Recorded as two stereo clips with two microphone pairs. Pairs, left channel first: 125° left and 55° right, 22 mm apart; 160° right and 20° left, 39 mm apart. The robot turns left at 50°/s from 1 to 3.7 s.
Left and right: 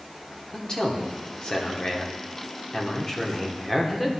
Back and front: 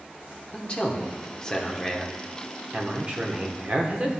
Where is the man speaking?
170° left, 0.9 m; by 4.1 s 35° left, 0.9 m.